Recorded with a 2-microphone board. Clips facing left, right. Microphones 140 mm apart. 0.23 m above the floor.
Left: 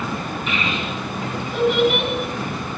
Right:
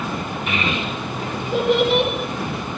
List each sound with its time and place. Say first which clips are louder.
0.5 s a child speaking: right 2 dB; 60° right (ahead or behind), 2.5 m; by 2.1 s 30° right (ahead or behind), 1.5 m